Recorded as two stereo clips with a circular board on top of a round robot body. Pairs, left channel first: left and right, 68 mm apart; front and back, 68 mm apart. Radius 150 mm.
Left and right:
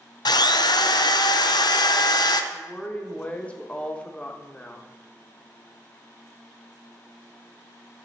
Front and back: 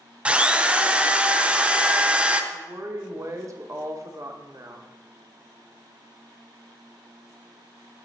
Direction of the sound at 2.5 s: 160° left.